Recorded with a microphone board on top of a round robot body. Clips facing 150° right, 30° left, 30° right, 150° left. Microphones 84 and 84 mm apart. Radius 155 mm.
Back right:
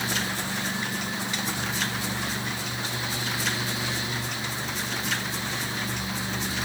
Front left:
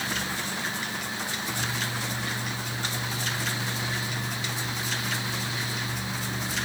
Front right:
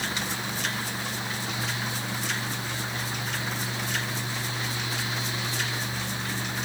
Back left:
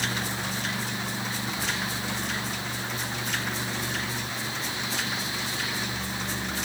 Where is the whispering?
No whispering in this recording.